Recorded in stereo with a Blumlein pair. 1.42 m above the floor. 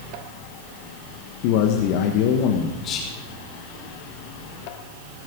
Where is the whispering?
30° left, 3 m.